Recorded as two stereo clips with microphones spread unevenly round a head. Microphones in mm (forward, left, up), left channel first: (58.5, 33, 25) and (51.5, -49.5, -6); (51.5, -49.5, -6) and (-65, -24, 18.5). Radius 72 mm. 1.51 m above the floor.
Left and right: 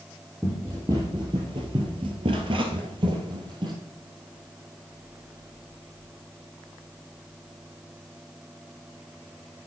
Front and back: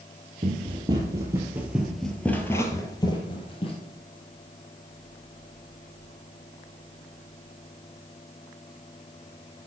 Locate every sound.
0.4 s running footsteps: straight behind, 2.5 m; by 3.8 s 55° right, 2.5 m